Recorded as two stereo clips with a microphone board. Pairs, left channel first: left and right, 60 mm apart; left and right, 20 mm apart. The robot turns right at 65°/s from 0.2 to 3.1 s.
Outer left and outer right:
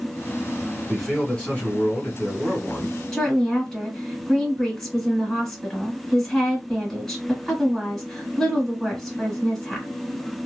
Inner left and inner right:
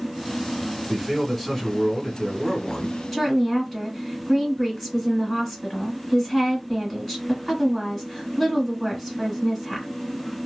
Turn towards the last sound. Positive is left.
turn(degrees=10)  # may be behind; listen again after turning